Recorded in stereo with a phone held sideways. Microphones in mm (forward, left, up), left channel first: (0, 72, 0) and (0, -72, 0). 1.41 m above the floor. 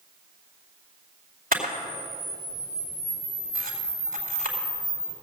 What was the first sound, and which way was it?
A camera shutter, 80° right.